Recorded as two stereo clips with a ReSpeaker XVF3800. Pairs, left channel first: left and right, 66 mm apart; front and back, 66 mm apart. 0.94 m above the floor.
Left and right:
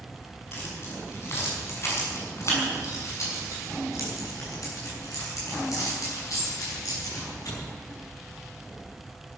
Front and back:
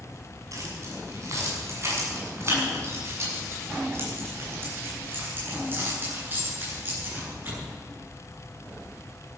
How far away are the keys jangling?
About 6.5 m.